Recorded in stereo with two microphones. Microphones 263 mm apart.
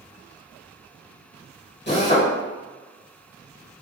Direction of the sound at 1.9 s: 40° left (ahead or behind).